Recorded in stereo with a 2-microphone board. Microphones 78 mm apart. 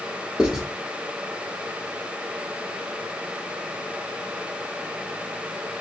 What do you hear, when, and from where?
0.4 s writing: 5° right (ahead or behind), 1.1 m